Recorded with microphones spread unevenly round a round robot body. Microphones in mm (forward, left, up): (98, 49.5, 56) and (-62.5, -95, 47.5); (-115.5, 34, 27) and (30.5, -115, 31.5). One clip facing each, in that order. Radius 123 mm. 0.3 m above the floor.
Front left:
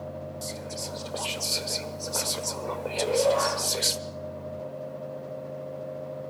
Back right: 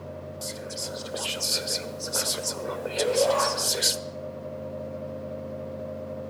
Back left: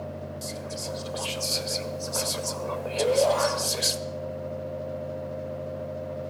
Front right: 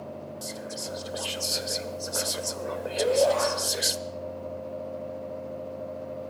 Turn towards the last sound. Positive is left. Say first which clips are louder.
# even, even
turn(degrees=-140)